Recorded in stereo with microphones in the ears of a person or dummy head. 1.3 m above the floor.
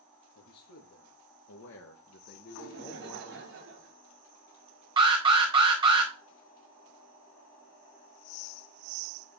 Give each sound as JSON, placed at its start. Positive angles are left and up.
{"t": 0.3, "sound": "a man speaking", "side_deg": 75, "distance_m": 1.8}
{"t": 2.5, "sound": "laughter", "side_deg": -65, "distance_m": 4.0}
{"t": 5.0, "sound": "an alarm", "side_deg": -30, "distance_m": 1.9}